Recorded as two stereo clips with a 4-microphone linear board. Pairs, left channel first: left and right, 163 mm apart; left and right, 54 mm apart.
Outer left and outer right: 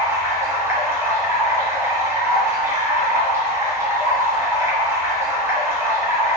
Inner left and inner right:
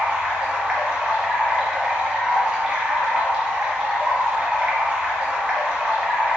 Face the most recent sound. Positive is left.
turn(degrees=-15)  # may be behind; listen again after turning